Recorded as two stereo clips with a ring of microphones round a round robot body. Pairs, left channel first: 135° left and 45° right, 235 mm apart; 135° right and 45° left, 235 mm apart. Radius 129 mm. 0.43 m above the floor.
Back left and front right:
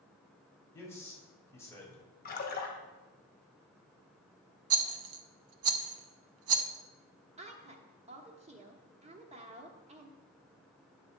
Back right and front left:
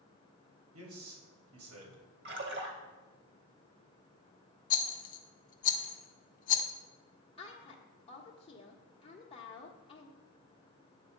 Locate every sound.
0.7 s a man speaking: 55° left, 3 m
2.2 s a splash: 85° left, 1.7 m
4.7 s a rattle: 80° right, 0.6 m
7.4 s a woman speaking: 85° right, 1.1 m